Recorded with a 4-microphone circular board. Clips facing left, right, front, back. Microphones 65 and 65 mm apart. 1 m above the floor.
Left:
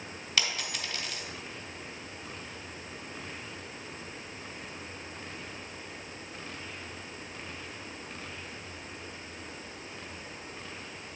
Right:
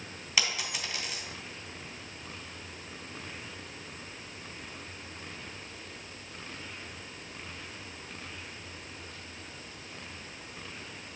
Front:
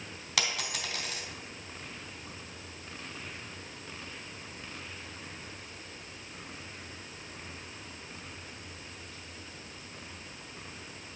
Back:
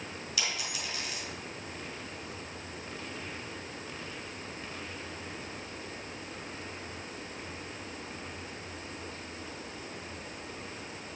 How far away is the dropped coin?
About 2 m.